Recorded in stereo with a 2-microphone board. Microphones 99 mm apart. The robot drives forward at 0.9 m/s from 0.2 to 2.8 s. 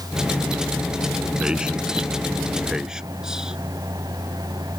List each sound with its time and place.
1.4 s a man speaking: 10° right (ahead or behind); by 3.6 s 5° right (ahead or behind)